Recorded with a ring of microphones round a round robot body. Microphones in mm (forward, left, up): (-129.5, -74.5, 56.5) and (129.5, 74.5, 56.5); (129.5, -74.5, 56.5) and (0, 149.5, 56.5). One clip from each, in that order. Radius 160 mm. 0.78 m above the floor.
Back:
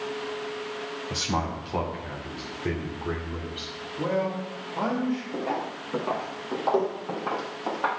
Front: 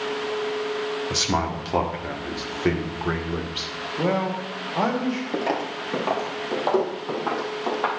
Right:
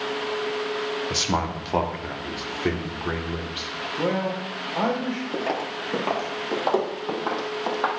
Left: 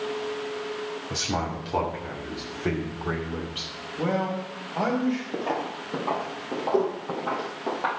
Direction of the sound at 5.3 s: 5° right.